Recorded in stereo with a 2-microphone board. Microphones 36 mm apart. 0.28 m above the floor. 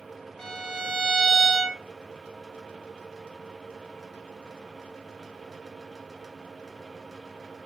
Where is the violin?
10° left (ahead or behind), 1.2 m.